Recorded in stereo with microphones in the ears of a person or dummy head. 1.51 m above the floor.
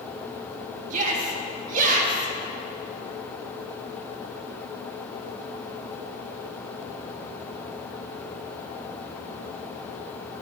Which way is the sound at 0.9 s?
45° right (ahead or behind).